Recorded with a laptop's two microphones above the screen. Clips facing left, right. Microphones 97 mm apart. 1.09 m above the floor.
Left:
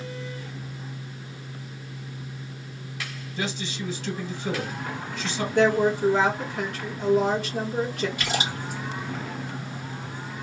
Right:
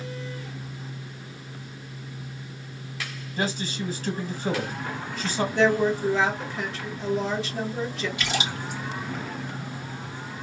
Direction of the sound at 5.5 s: 60° left (ahead or behind).